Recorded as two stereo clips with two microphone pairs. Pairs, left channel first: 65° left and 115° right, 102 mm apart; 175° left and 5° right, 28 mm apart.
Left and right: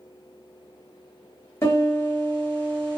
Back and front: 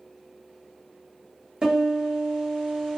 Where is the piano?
10° left, 1.4 m.